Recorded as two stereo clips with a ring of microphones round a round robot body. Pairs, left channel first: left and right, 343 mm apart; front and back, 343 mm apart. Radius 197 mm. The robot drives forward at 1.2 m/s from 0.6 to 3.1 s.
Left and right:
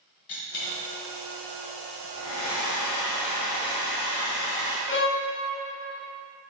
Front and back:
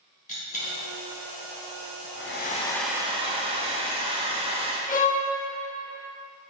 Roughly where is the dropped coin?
Left.